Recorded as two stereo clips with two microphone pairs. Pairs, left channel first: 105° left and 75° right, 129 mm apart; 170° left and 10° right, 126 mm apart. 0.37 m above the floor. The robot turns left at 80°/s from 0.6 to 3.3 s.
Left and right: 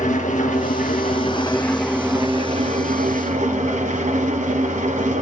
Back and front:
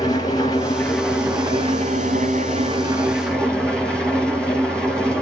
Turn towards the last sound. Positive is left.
turn(degrees=-105)